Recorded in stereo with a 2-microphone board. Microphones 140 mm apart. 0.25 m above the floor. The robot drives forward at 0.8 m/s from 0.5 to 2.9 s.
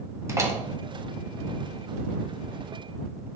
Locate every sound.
0.3 s a door slam: 20° right (ahead or behind), 1.1 m; by 0.6 s 25° right (ahead or behind), 1.1 m